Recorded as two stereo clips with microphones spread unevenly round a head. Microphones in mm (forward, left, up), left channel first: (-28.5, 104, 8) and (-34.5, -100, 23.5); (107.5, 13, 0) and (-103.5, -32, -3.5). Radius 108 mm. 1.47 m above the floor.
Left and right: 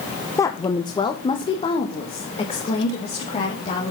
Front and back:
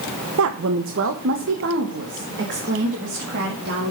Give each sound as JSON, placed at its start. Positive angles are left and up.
{"t": 0.4, "sound": "a woman speaking", "azimuth_deg": 165, "distance_m": 0.8}